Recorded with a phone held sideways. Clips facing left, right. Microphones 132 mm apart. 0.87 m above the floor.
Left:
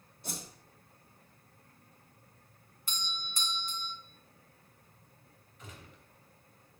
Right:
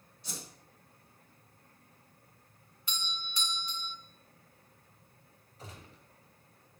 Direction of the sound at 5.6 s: 35° right (ahead or behind).